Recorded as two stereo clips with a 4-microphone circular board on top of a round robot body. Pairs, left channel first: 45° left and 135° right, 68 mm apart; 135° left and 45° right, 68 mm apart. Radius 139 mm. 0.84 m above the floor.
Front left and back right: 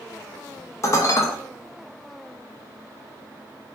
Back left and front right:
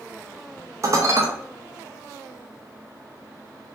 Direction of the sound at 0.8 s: Straight ahead.